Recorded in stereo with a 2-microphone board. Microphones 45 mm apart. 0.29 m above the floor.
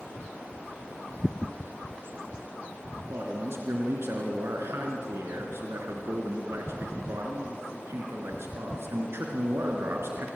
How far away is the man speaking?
About 3.5 m.